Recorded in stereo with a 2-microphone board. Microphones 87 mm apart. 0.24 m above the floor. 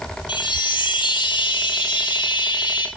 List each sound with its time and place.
0.3 s a chime: 75° left (ahead or behind), 3 m